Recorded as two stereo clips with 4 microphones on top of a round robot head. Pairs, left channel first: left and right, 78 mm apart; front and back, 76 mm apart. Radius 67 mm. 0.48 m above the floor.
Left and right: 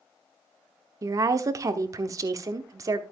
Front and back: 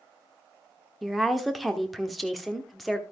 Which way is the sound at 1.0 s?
90° right.